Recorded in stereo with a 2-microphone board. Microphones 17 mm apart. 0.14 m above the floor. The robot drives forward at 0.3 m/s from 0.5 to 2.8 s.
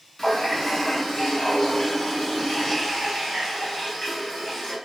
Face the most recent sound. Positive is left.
turn(degrees=25)  # may be behind; listen again after turning